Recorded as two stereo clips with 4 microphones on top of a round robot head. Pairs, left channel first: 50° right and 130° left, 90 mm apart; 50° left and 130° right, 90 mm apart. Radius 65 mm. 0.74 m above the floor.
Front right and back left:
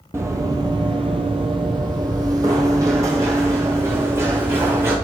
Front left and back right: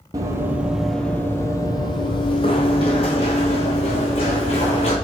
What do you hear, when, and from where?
0.1 s running footsteps: 175° right, 0.9 m; by 5.0 s 65° left, 2.5 m